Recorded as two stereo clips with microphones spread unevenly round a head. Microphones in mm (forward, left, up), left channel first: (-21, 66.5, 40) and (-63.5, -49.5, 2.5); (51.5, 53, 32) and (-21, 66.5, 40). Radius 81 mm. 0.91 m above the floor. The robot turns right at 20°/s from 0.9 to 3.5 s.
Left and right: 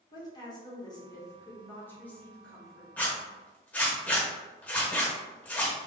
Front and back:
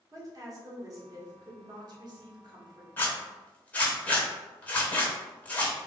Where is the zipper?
50° left, 0.6 m; by 5.8 s 60° left, 0.6 m.